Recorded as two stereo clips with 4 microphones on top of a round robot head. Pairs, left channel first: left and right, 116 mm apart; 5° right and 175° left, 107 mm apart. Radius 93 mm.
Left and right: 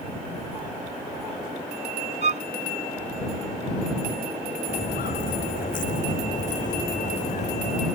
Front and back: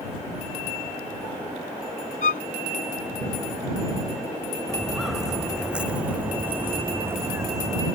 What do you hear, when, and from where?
2.2 s a violin: 40° right
4.7 s footsteps: 85° left; by 7.9 s 115° left